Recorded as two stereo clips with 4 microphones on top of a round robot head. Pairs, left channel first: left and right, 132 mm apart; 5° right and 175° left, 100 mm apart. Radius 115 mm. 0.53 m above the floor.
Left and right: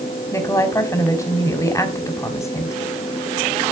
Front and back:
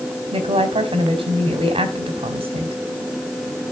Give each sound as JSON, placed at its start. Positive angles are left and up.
{"t": 0.3, "sound": "a woman speaking", "azimuth_deg": 155, "distance_m": 3.0}